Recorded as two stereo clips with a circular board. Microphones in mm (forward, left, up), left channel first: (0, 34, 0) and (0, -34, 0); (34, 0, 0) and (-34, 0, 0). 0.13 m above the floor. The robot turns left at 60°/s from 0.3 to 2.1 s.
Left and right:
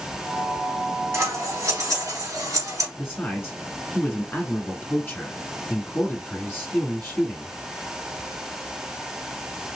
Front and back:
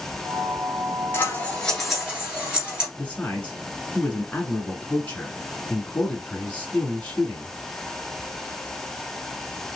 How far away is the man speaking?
About 1.3 m.